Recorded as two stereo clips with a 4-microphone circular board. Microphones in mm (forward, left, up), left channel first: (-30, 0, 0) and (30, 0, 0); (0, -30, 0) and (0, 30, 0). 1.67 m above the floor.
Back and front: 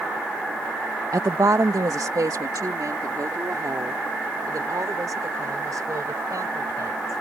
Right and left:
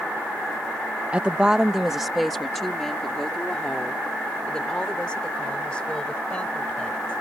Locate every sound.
1.1 s a woman speaking: 20° left; by 7.2 s 20° right